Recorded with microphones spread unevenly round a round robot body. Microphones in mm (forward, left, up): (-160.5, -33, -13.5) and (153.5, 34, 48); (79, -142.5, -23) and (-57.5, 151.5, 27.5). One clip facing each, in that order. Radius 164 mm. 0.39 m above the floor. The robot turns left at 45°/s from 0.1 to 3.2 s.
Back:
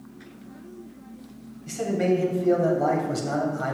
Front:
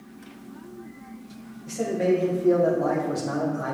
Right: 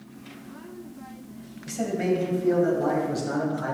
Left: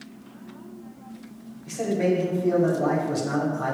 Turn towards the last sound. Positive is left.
turn(degrees=-170)